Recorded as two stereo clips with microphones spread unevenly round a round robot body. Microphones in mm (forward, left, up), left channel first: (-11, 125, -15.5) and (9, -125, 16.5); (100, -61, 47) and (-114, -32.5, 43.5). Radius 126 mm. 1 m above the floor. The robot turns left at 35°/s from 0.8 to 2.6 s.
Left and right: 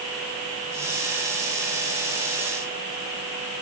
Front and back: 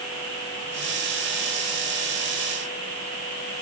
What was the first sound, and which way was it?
Only background noise.